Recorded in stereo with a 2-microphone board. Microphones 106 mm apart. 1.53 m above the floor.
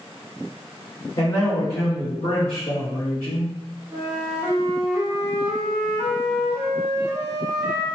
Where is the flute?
20° right (ahead or behind), 0.9 m.